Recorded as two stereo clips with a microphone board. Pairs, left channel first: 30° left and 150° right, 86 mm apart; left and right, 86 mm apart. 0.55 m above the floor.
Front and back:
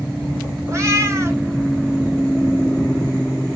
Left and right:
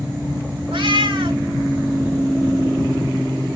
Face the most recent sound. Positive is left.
turn(degrees=-95)